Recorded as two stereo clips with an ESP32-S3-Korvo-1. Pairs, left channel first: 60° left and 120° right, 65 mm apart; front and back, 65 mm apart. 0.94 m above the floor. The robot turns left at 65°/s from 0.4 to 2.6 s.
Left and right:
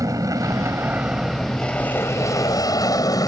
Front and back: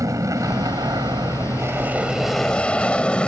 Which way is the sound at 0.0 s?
145° right.